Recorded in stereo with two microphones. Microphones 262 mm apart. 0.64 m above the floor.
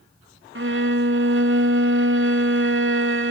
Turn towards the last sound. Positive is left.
turn(degrees=-50)  # may be behind; listen again after turning